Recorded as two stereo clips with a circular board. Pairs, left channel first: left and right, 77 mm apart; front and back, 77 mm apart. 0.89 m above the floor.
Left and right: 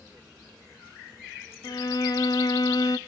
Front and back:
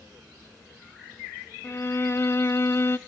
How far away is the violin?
About 0.6 m.